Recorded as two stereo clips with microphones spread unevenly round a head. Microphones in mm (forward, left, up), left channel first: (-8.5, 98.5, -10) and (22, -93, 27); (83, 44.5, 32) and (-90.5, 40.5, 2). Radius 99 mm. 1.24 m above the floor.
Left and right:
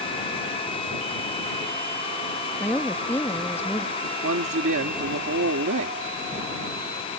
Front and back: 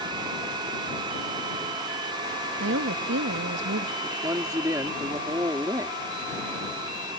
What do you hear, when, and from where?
2.6 s a woman speaking: straight behind
4.0 s a man speaking: 100° right